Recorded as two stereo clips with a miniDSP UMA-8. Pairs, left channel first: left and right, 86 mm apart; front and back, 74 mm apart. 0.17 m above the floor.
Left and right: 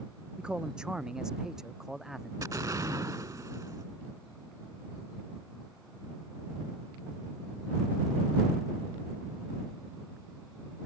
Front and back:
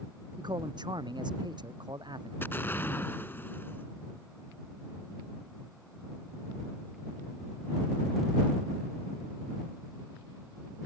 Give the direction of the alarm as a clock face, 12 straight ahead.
I don't hear an alarm.